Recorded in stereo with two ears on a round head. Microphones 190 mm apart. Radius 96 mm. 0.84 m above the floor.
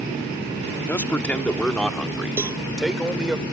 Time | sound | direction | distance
0.9 | a man speaking | 10° left (ahead or behind) | ?
2.4 | a cowbell | 10° right (ahead or behind) | ?